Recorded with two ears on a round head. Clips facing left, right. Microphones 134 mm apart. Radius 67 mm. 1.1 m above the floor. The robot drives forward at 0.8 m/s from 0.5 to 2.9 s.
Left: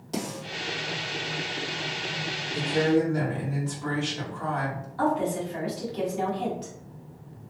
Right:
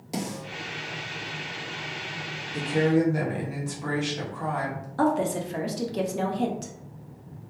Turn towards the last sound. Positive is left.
turn(degrees=-55)  # may be behind; listen again after turning